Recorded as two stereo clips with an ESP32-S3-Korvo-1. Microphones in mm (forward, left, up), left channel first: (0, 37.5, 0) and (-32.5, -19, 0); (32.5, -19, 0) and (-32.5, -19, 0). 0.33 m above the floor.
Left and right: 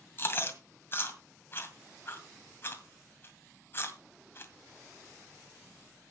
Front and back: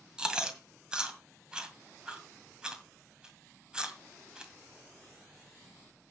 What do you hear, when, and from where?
0.2 s chewing: 110° left, 1.9 m